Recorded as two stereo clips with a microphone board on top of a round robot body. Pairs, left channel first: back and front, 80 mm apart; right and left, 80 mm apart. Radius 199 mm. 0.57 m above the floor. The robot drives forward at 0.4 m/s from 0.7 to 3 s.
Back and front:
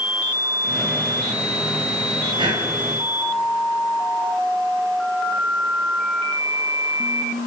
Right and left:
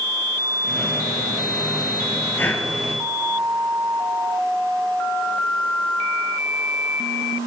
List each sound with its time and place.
2.4 s breathing: 25° right, 2.5 m